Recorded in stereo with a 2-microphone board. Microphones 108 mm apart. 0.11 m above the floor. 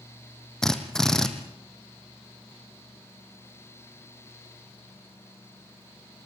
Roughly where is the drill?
Centre.